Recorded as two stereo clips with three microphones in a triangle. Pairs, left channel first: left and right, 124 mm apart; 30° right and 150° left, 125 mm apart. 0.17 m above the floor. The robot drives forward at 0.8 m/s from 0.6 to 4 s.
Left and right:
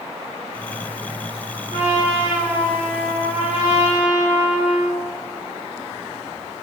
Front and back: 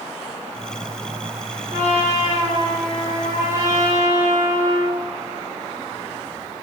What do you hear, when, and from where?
1.7 s a trumpet: 65° right, 3.5 m; by 5.0 s 95° right, 3.5 m